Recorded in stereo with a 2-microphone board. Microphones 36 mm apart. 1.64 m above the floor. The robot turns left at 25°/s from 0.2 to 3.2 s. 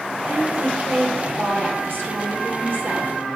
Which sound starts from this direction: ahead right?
A woman speaking, at 0.3 s.